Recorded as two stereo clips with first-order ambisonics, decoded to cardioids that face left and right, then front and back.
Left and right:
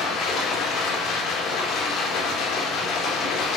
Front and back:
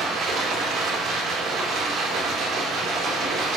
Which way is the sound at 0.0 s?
130° left.